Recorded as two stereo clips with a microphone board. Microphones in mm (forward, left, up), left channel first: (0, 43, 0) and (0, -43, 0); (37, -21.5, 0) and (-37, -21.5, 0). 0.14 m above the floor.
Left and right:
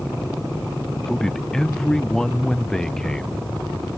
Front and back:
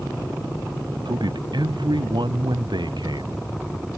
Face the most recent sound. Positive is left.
turn(degrees=175)